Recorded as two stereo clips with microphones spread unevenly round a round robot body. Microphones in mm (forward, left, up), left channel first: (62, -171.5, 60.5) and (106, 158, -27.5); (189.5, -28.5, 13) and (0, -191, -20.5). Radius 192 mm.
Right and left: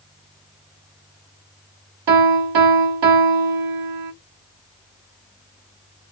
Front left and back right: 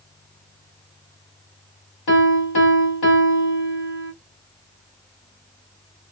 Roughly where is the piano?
Left.